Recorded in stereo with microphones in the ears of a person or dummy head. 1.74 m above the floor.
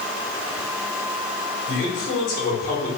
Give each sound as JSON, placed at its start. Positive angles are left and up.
{"t": 1.7, "sound": "a man speaking", "side_deg": 40, "distance_m": 1.6}